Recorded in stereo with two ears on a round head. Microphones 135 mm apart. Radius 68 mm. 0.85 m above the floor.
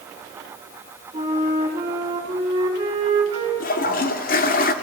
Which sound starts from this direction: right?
A flute, at 1.1 s.